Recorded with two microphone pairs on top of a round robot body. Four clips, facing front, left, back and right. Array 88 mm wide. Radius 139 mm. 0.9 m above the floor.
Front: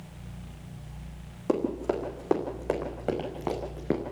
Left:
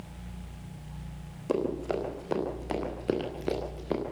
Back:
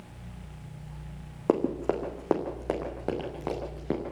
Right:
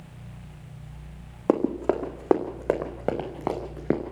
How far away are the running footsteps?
About 3 m.